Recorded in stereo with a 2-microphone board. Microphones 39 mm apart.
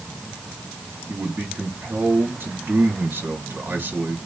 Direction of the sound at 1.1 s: 65° right (ahead or behind).